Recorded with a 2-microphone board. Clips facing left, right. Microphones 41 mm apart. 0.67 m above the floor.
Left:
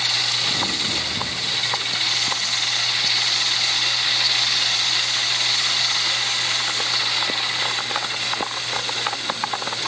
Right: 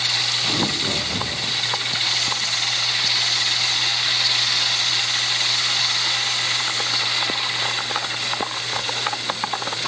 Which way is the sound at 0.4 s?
65° right (ahead or behind).